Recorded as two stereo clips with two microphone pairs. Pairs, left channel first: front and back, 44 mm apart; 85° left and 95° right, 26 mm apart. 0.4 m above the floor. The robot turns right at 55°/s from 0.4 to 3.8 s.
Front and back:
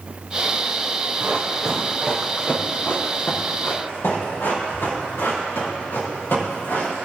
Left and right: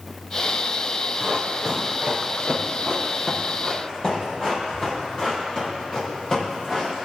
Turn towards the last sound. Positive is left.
turn(degrees=20)